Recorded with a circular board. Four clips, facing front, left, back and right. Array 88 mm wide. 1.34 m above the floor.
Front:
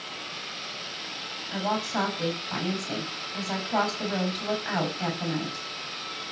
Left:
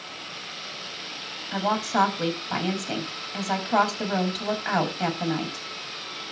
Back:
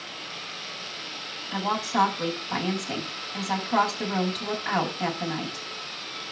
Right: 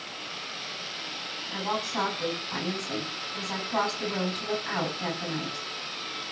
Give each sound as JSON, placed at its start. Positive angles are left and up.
{"t": 1.5, "sound": "a woman speaking", "azimuth_deg": 95, "distance_m": 7.0}